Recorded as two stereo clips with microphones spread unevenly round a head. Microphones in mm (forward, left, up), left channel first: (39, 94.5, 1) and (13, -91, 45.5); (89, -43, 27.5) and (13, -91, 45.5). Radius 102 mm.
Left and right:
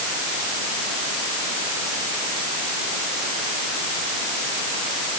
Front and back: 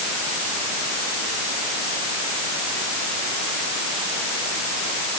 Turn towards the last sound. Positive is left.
No sound to turn to.